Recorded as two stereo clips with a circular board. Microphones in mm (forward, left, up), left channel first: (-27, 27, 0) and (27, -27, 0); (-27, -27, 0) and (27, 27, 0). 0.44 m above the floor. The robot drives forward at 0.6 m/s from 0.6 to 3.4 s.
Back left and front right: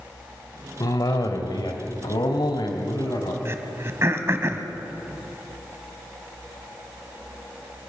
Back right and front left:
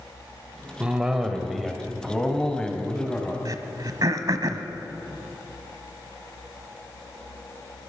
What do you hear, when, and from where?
0.8 s a cough: 120° left, 1.6 m; by 3.4 s 150° left, 2.5 m
3.5 s throat clearing: 10° left, 1.3 m